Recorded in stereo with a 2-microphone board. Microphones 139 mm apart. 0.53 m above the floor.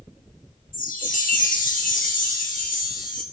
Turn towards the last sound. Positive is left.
turn(degrees=70)  # may be behind; listen again after turning